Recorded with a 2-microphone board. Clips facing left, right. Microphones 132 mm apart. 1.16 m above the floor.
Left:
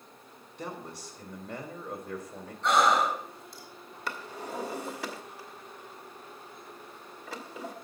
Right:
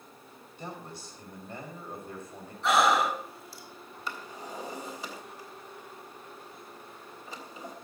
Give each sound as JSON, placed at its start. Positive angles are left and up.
{"t": 0.6, "sound": "a man speaking", "side_deg": 80, "distance_m": 4.5}
{"t": 2.6, "sound": "breathing", "side_deg": -5, "distance_m": 3.0}
{"t": 4.1, "sound": "a drawer", "side_deg": 70, "distance_m": 2.0}